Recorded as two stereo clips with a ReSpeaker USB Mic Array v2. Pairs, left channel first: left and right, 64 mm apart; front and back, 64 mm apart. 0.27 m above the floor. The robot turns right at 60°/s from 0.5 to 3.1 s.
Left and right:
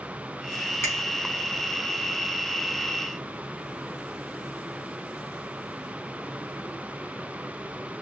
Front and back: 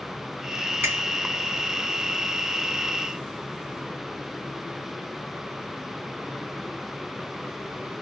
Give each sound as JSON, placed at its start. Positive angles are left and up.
{"t": 0.8, "sound": "a finger snap", "azimuth_deg": 125, "distance_m": 2.0}